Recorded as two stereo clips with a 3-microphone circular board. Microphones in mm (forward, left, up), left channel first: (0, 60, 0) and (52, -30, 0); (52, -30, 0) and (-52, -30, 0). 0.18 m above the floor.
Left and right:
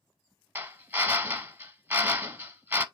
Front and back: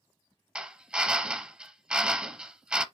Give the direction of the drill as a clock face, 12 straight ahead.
4 o'clock.